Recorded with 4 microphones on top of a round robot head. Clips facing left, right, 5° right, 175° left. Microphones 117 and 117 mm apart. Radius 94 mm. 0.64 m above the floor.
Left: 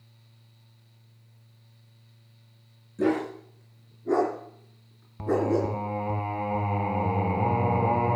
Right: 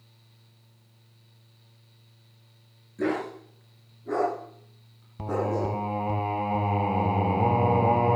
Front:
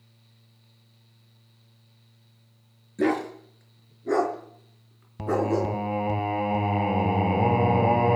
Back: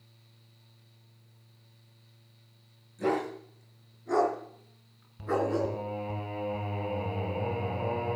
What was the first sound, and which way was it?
A dog barking, 15° left.